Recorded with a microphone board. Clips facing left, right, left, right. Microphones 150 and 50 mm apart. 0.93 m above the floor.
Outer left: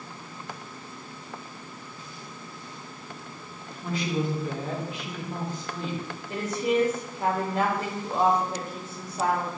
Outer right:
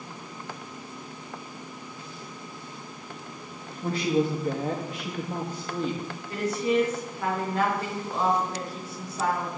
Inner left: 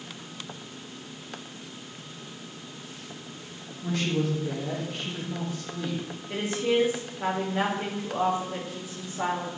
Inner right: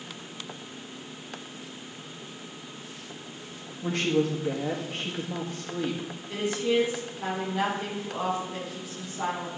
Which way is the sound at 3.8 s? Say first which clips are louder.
Outer right 4 dB, inner right 2 dB; 40° right (ahead or behind).